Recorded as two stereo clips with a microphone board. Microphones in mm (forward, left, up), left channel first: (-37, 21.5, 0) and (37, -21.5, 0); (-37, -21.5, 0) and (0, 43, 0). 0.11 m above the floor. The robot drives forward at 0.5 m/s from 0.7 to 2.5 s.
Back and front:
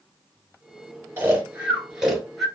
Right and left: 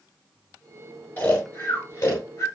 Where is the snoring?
75° right, 1.1 m; by 2.5 s 120° right, 1.2 m.